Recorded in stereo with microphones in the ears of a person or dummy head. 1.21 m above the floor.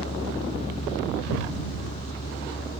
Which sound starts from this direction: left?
A vehicle, at 0.0 s.